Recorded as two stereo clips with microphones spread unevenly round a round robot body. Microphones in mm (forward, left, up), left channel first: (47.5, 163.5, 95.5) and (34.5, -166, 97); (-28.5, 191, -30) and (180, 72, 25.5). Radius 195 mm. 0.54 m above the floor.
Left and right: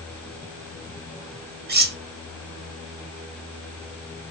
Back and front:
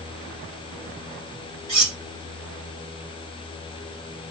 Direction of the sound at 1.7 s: 30° right.